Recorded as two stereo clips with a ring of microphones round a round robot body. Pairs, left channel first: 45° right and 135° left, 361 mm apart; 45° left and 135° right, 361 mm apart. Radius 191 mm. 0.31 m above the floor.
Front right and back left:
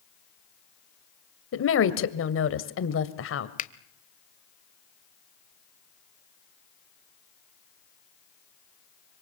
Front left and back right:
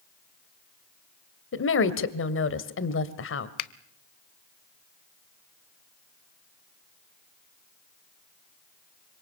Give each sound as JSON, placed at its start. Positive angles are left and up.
{"t": 1.5, "sound": "a woman speaking", "azimuth_deg": 0, "distance_m": 2.0}
{"t": 3.6, "sound": "a finger snap", "azimuth_deg": 20, "distance_m": 1.1}